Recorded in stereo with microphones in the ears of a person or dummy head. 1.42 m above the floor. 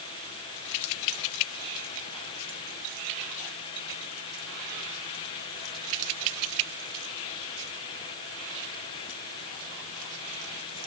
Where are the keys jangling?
No keys jangling in this recording.